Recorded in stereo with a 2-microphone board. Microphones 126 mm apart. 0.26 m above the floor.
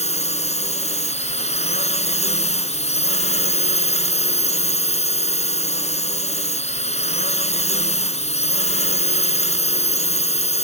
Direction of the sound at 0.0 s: 60° left (ahead or behind).